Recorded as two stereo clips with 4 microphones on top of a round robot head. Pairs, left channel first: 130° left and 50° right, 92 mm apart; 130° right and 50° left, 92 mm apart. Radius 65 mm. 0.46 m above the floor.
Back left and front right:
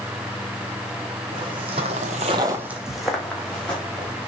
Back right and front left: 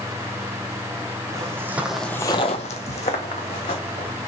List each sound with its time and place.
1.3 s footsteps: 10° right, 1.6 m; by 4.1 s 155° right, 3 m